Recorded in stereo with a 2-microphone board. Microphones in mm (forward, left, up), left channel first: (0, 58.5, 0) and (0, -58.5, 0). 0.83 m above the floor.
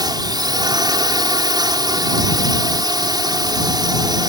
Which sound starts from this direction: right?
A drone, at 0.0 s.